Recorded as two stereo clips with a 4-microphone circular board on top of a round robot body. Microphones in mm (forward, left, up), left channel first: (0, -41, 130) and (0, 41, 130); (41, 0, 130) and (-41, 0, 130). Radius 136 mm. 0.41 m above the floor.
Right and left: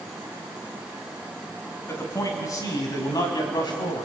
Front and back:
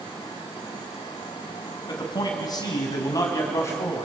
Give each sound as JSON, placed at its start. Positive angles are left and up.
{"t": 1.9, "sound": "a man speaking", "azimuth_deg": -35, "distance_m": 5.5}